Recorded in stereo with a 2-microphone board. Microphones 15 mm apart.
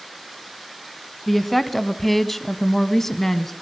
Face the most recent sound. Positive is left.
turn(degrees=20)  # may be behind; listen again after turning